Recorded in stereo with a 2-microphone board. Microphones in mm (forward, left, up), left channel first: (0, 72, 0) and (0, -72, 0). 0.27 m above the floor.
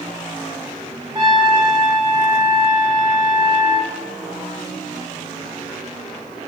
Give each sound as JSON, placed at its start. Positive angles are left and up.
{"t": 1.1, "sound": "a trumpet", "side_deg": -40, "distance_m": 0.6}